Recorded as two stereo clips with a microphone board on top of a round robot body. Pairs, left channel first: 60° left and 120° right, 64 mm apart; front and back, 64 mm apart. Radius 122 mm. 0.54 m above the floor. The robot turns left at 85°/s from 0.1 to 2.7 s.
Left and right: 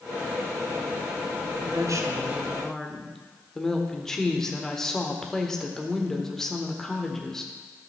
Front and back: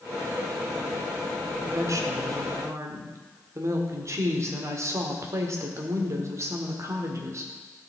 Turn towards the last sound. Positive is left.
turn(degrees=145)